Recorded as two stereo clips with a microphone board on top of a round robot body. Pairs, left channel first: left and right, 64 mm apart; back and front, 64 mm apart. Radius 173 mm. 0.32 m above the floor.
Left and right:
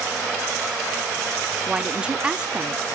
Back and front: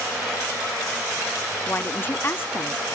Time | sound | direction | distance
1.7 | a woman speaking | 155° right | 1.3 m